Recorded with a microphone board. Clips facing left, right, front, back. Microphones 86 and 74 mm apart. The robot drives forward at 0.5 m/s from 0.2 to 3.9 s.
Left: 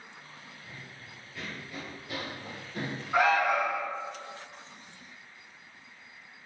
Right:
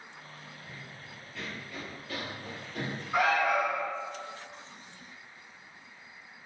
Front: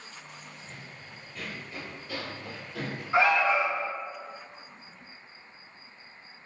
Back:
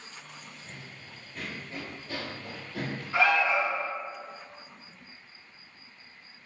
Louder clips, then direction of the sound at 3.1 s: Left 2 dB, front 2 dB; 60° left.